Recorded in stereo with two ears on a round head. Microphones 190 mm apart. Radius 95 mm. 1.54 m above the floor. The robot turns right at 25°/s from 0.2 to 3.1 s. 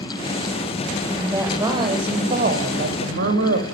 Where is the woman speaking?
175° right, 8.5 m; by 3.6 s 125° right, 8.5 m.